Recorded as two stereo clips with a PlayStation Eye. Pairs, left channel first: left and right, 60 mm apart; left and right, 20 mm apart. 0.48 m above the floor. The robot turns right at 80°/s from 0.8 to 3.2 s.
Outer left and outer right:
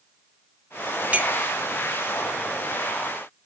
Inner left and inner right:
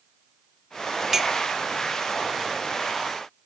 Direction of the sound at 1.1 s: 20° right (ahead or behind).